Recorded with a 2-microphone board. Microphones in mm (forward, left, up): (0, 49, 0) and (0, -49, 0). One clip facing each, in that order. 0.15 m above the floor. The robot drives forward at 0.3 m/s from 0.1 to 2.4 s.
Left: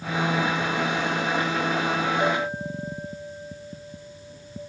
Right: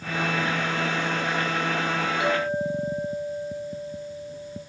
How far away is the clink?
About 1.3 m.